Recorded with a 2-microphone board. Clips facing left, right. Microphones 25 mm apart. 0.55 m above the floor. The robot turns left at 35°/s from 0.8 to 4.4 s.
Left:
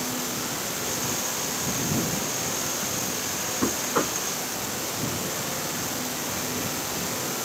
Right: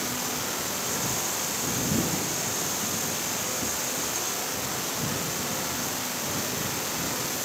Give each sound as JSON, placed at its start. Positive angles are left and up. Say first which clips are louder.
{"t": 3.6, "sound": "knocking", "louder": "left 5 dB", "side_deg": 80}